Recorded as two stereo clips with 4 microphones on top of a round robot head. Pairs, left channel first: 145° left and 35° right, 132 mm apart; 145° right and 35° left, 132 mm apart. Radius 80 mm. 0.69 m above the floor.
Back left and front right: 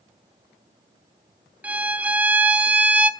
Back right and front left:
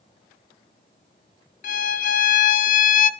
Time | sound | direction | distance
1.6 | a violin | 115° right | 0.8 m